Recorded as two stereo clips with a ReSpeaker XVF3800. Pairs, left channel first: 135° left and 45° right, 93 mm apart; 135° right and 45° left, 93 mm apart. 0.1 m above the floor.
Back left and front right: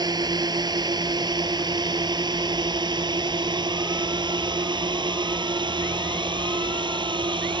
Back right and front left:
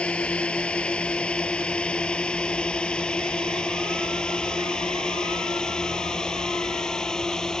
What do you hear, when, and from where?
0.0 s a drone: 60° right; by 7.6 s 50° right